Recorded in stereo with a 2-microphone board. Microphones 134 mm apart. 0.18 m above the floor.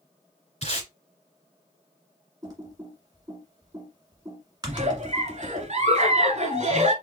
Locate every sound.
0.6 s tape being pulled: 50° left (ahead or behind), 2.5 m
2.4 s typing on a keyboard: 30° right (ahead or behind), 1.5 m
4.7 s a giggle: 55° right (ahead or behind), 0.7 m